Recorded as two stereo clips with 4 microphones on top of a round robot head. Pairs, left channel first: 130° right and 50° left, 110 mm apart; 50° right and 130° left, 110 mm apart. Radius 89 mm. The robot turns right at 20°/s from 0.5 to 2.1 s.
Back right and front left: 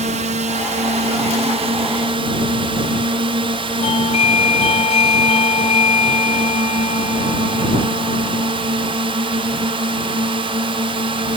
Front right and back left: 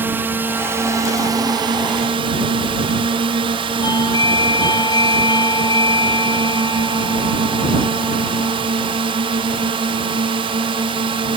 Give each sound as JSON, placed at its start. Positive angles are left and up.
{"t": 0.0, "sound": "a drone", "azimuth_deg": 60}
{"t": 3.8, "sound": "a doorbell", "azimuth_deg": -105}